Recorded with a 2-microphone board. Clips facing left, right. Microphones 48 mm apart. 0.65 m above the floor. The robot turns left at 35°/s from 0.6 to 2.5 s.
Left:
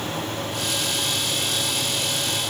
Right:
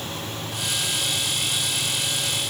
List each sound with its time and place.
Only background noise.